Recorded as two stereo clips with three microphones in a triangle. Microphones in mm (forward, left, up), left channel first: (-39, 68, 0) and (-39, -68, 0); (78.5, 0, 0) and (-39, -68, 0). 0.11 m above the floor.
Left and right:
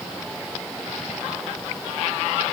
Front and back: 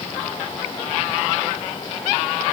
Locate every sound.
Only background noise.